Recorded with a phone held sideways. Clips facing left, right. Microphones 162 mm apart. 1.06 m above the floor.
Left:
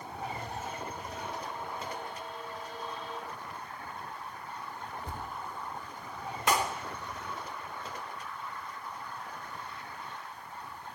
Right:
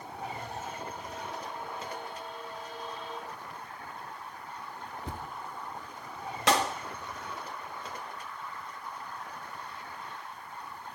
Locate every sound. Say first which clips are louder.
5.0 s a thud: right 3 dB; 85° right, 7 m
6.5 s a clap: right 2 dB; 80° right, 1.6 m